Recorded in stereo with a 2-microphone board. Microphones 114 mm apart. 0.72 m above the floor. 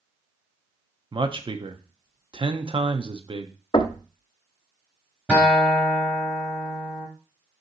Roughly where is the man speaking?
Right.